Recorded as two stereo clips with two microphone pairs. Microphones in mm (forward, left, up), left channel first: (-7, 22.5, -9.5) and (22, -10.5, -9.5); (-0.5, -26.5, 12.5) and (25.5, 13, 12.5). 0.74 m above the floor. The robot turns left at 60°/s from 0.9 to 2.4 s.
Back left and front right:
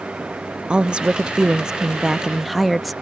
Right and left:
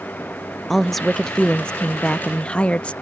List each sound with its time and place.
0.7 s a woman speaking: 40° right; by 2.9 s 130° right